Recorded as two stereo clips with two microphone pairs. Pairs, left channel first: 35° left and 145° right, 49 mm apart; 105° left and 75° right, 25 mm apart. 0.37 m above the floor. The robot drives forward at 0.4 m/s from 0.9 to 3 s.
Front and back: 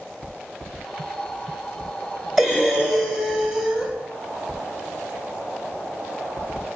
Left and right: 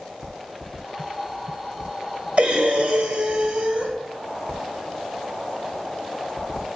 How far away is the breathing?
About 1.4 m.